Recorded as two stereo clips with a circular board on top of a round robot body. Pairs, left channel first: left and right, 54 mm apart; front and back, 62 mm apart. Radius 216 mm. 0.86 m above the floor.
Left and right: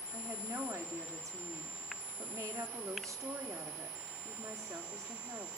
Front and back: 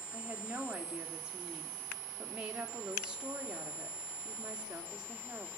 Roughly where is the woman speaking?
Right.